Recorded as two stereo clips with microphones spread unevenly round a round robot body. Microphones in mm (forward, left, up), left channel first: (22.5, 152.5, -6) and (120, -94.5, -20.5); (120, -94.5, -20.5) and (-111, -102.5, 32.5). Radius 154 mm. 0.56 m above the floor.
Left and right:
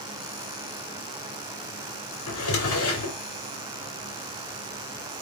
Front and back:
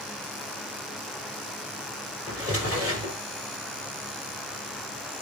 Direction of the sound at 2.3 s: 100° left.